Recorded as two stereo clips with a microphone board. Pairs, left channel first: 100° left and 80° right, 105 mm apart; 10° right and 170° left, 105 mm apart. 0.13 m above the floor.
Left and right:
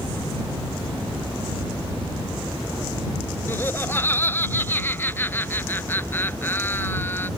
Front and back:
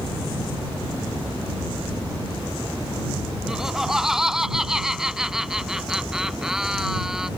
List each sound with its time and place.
3.5 s laughter: 95° left